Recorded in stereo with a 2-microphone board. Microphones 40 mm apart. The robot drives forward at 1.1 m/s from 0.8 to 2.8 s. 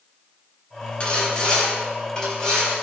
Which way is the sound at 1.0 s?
25° left (ahead or behind).